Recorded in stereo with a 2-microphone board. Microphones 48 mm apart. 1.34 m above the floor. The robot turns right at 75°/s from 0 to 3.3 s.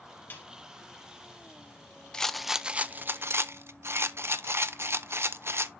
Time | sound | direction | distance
0.3 | a snare drum | 45° left (ahead or behind) | 3.5 m
2.1 | a rattle | 160° left | 0.5 m